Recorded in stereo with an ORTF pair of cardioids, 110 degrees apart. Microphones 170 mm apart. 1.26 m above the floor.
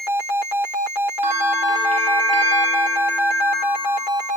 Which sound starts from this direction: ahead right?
A bell, at 1.2 s.